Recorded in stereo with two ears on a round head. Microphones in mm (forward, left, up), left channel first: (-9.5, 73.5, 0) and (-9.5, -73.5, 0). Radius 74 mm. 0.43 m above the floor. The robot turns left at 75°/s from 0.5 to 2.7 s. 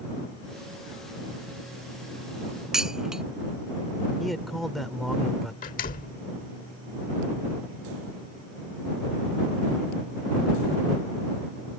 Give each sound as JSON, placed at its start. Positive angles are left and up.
{"t": 2.7, "sound": "dishes clattering", "side_deg": -5}
{"t": 4.2, "sound": "a man speaking", "side_deg": 0}
{"t": 5.6, "sound": "a door slam", "side_deg": 55}